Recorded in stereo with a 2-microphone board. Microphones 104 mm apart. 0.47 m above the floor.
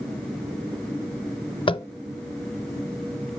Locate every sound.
1.7 s tapping: 55° left (ahead or behind), 0.5 m